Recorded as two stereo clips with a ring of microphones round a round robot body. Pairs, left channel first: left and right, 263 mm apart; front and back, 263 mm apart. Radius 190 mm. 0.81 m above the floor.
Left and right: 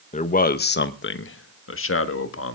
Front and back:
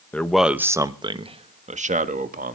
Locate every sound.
0.1 s a man speaking: 75° left, 1.0 m; by 2.6 s 125° left, 2.0 m